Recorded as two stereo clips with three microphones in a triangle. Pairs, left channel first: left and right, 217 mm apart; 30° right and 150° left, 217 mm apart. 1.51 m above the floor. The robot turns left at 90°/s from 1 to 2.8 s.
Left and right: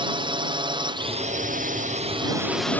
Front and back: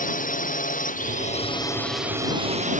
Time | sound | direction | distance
0.0 | a drone | 35° right | ?